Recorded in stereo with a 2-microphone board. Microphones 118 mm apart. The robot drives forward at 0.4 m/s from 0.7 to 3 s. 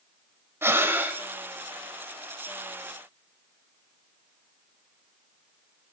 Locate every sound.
0.6 s breathing: 20° right (ahead or behind), 0.7 m; by 1.2 s 15° right (ahead or behind), 0.9 m